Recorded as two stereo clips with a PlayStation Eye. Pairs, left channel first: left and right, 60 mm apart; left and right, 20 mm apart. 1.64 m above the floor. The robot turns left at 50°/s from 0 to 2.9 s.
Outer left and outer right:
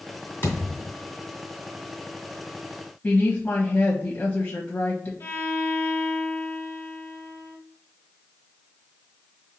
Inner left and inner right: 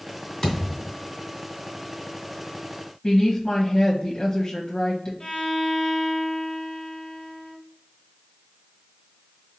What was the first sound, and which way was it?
A thud, 35° left (ahead or behind).